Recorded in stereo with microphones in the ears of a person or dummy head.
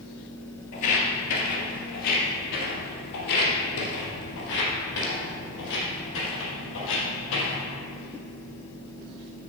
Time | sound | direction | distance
0.7 | footsteps | 50° left (ahead or behind) | 2.5 m